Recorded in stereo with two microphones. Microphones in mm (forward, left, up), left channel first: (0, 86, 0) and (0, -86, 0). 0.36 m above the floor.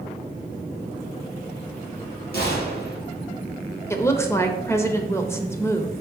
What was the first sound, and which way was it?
A gunshot, 70° left (ahead or behind).